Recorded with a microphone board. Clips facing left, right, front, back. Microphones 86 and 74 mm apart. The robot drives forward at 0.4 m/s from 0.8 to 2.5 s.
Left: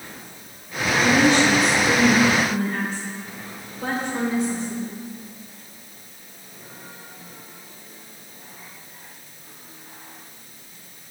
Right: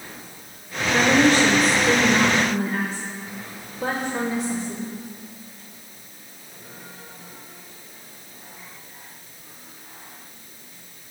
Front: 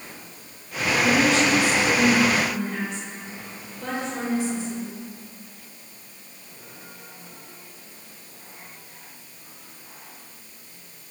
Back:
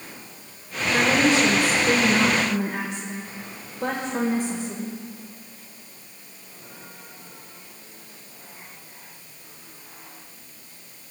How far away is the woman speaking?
About 1.0 m.